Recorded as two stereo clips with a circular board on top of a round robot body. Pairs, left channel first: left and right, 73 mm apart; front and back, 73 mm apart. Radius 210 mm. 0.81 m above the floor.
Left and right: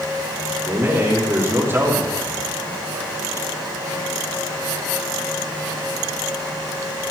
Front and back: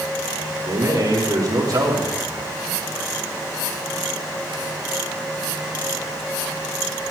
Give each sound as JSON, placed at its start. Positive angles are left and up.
{"t": 0.7, "sound": "a man speaking", "azimuth_deg": -145, "distance_m": 4.0}